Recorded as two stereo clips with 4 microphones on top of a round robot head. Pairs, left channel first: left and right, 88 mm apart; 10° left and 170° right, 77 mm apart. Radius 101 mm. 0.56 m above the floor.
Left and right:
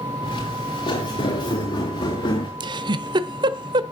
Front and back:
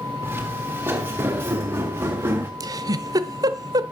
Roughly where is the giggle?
Behind right.